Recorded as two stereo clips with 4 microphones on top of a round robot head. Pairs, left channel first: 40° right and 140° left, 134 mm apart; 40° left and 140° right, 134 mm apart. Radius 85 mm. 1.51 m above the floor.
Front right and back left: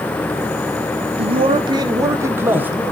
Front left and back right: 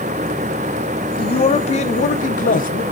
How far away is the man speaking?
About 1.2 m.